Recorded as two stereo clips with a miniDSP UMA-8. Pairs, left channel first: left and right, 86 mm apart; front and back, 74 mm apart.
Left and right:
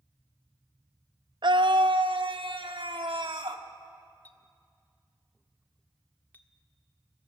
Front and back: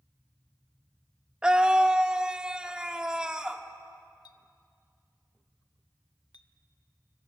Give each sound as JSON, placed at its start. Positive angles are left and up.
{"t": 1.4, "sound": "a scream", "azimuth_deg": -100, "distance_m": 0.6}
{"t": 4.2, "sound": "a clink", "azimuth_deg": 20, "distance_m": 1.1}